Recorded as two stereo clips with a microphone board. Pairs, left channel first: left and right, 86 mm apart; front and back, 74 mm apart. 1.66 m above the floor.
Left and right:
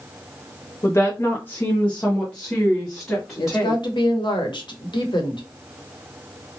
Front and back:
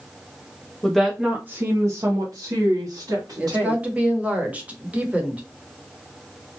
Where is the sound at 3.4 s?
110° left, 1.0 m.